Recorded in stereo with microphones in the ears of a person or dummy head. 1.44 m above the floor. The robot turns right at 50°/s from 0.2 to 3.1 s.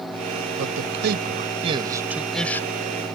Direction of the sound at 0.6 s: 90° right.